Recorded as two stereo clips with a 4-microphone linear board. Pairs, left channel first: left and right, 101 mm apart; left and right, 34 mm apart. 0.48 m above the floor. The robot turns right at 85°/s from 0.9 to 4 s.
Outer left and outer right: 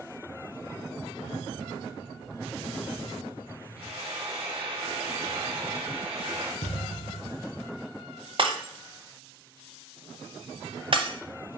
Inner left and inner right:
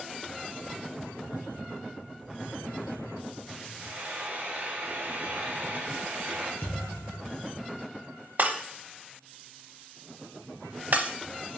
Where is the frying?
65° right (ahead or behind), 2.5 m; by 6.5 s 70° right (ahead or behind), 2.5 m.